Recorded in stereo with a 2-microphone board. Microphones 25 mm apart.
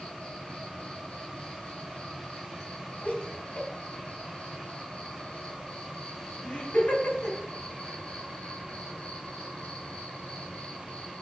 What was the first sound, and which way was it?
An insect, 55° left (ahead or behind).